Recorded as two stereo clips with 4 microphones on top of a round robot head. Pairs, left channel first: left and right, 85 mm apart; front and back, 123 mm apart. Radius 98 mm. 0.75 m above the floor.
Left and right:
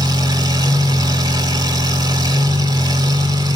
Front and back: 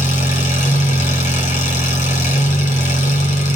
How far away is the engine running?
About 2.5 m.